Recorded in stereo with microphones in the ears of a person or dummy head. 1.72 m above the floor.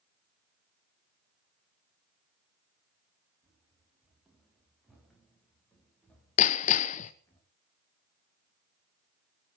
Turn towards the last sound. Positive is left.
turn(degrees=35)  # may be behind; listen again after turning